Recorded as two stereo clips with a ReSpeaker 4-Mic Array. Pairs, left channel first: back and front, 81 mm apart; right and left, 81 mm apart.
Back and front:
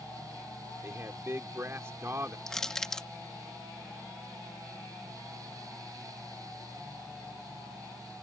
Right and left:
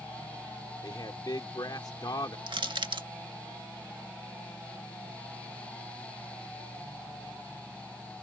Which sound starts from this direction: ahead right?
A man speaking, at 0.8 s.